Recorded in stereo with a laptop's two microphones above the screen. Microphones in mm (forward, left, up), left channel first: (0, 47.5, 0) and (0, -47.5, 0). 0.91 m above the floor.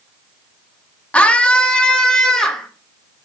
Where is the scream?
15° left (ahead or behind), 1.4 m; by 2.7 s 5° left (ahead or behind), 2.5 m.